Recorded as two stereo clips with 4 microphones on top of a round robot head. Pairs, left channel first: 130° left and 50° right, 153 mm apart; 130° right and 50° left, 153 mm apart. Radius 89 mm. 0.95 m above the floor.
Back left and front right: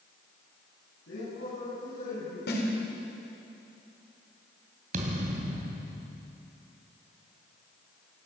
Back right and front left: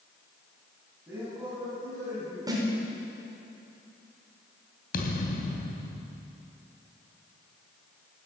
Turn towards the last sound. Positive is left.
turn(degrees=-90)